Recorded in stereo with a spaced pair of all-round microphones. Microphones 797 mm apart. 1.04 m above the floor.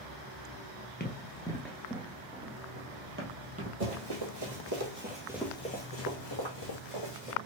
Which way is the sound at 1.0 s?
15° left (ahead or behind).